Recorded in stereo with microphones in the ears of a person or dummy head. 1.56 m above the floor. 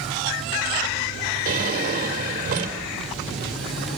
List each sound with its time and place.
1.4 s a drawer: 45° right (ahead or behind), 3.5 m